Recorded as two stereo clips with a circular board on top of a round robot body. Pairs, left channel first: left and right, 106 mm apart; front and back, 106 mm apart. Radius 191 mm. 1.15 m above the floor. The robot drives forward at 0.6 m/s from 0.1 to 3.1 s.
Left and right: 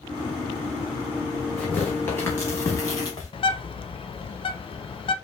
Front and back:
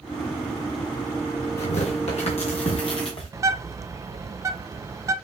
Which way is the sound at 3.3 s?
120° left.